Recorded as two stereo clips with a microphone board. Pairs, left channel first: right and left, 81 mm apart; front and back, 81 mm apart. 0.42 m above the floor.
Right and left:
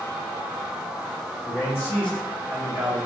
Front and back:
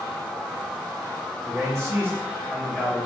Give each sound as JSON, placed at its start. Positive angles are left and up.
{"t": 1.4, "sound": "a man speaking", "azimuth_deg": -135, "distance_m": 1.2}